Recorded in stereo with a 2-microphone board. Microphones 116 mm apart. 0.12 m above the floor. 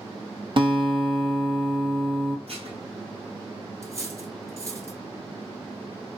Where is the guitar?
50° right (ahead or behind), 0.8 m.